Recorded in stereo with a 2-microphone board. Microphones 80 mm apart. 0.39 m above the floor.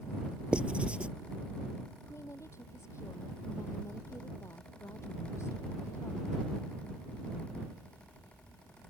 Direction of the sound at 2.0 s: 35° left (ahead or behind).